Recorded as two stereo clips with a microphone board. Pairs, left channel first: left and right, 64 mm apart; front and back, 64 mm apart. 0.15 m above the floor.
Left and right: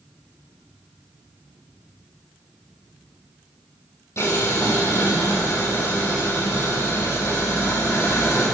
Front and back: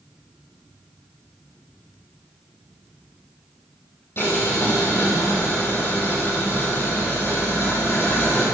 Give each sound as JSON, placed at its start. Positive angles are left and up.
{"t": 4.2, "sound": "boiling", "azimuth_deg": 50, "distance_m": 4.5}